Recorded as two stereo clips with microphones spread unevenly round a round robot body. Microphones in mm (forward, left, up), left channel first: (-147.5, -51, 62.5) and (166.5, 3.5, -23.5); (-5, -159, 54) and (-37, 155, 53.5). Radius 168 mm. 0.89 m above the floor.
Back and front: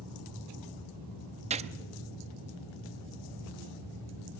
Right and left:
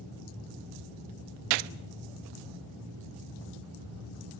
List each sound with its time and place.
1.5 s a gunshot: 85° left, 0.5 m